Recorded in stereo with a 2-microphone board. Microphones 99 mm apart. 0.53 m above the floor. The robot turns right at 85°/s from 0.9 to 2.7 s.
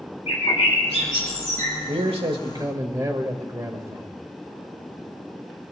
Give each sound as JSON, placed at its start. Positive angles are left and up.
{"t": 0.3, "sound": "a bird", "azimuth_deg": 90, "distance_m": 4.0}
{"t": 1.9, "sound": "a man speaking", "azimuth_deg": -105, "distance_m": 1.8}